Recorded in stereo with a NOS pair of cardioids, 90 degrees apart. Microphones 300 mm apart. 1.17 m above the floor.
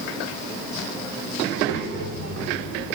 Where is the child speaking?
60° right, 2.5 m.